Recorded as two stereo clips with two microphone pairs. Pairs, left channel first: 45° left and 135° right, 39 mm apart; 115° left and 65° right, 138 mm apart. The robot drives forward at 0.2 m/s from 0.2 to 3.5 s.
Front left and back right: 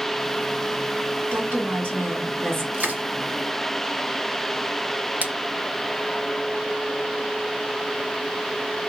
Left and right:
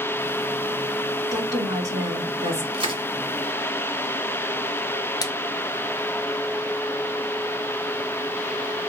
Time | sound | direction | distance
1.3 | a woman speaking | 125° right | 2.5 m
2.7 | crushing | 105° right | 1.5 m
5.2 | a splash | 175° left | 0.9 m